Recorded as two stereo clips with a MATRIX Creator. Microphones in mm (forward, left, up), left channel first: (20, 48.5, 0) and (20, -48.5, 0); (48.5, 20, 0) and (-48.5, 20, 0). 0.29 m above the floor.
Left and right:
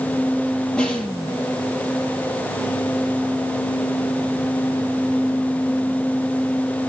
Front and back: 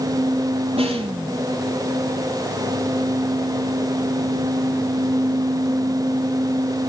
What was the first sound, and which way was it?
A snare drum, 170° left.